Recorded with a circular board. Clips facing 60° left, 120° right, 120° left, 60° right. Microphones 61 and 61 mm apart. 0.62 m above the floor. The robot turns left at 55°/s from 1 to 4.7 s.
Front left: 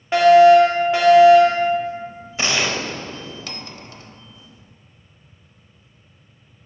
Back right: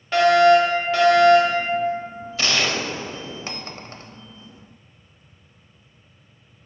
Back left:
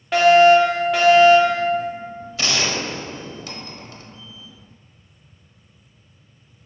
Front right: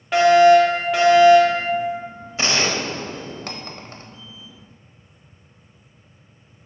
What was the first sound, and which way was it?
A fire alarm, 20° left.